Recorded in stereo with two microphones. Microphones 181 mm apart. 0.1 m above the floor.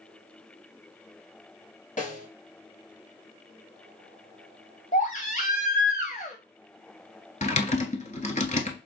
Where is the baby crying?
50° left (ahead or behind), 1.2 m.